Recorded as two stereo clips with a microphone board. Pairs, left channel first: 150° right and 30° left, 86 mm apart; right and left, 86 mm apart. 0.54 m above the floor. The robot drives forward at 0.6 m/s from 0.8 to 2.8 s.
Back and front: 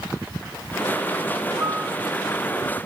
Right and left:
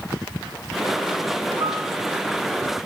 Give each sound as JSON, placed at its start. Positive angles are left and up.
{"t": 1.6, "sound": "a piano", "azimuth_deg": 85, "distance_m": 0.9}